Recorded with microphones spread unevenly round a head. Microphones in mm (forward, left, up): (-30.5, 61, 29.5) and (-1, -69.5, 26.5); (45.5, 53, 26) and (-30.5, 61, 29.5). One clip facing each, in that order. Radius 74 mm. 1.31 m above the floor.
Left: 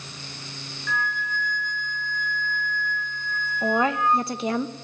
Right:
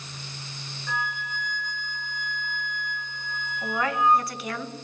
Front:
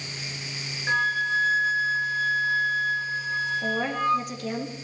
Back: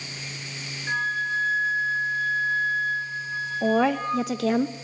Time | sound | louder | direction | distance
0.9 | a flute | left 3 dB, front 2 dB | 5° right | 0.9 m
3.6 | a woman speaking | left 2 dB, back 8 dB | 170° left | 1.4 m